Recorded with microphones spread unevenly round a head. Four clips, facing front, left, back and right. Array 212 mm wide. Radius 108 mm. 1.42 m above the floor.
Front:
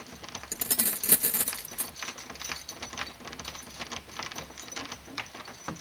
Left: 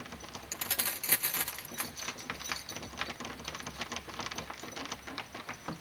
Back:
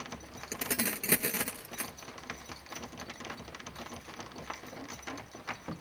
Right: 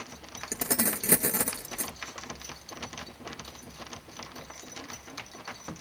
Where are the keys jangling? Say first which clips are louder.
Right 11 dB, back 3 dB; 95° right.